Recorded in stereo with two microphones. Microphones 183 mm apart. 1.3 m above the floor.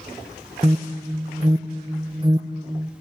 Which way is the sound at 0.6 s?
30° right (ahead or behind).